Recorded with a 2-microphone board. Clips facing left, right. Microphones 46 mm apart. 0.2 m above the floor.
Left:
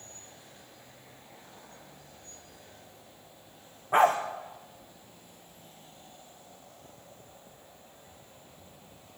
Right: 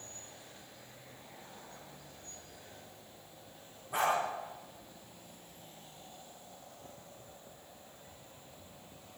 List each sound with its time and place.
3.9 s a dog barking: 50° left (ahead or behind), 5.5 m